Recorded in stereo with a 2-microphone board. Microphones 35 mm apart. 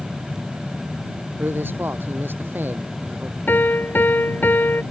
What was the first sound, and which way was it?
A man speaking, 75° right (ahead or behind).